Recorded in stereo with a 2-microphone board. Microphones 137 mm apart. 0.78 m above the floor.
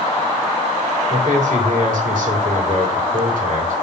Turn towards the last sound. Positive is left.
turn(degrees=-75)  # may be behind; listen again after turning